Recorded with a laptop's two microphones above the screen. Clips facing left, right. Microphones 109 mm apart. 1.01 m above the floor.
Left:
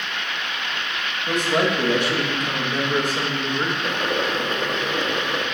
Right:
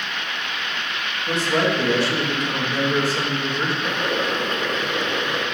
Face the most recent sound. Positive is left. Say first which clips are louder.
# even
turn(degrees=15)  # may be behind; listen again after turning